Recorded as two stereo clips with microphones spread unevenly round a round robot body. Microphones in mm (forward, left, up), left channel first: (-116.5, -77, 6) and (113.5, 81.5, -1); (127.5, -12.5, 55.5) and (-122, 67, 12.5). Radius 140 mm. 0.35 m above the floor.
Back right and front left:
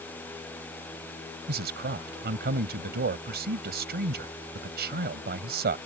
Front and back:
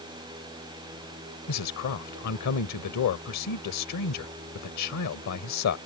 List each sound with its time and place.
1.5 s a man speaking: 10° right